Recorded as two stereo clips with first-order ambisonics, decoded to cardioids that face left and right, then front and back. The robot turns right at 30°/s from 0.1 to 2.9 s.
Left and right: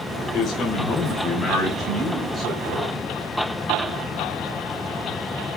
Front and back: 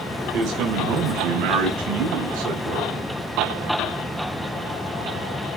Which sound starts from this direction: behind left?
A man speaking, at 0.3 s.